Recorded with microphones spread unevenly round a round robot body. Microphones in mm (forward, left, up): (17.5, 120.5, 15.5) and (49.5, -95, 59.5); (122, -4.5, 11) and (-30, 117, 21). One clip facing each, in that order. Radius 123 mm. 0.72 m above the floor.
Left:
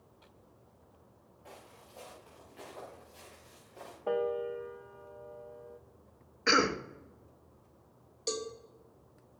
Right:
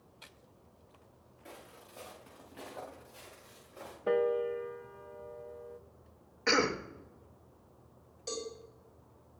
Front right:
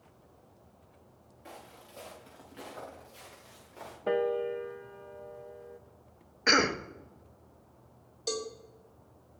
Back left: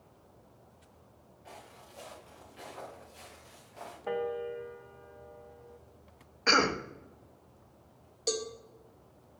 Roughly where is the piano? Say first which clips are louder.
Right 3 dB, front right 5 dB; ahead.